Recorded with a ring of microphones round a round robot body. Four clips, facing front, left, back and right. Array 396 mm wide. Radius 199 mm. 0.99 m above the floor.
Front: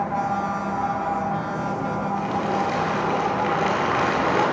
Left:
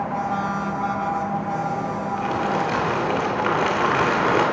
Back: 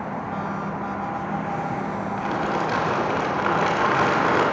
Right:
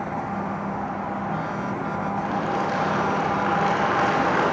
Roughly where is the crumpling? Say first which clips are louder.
Left 3 dB, back 1 dB; behind left.